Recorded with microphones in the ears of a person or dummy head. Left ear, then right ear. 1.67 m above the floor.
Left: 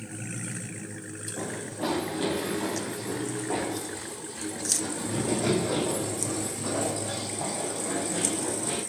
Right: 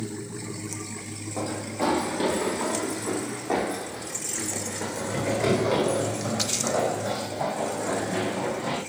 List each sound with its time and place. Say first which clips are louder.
1.4 s running footsteps: right 5 dB; 65° right (ahead or behind), 3.5 m; by 8.8 s 70° right (ahead or behind), 9 m